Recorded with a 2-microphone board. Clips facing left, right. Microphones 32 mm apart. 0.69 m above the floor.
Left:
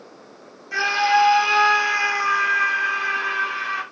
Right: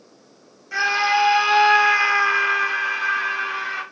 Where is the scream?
Centre (ahead or behind), 1.0 m; by 3.8 s 20° right (ahead or behind), 1.3 m.